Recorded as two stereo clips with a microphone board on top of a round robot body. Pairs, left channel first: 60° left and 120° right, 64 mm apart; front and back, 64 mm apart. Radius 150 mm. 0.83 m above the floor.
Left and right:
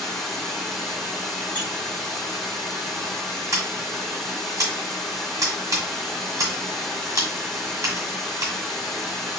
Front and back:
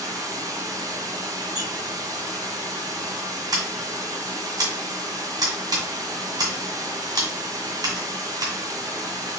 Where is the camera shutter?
I don't hear a camera shutter.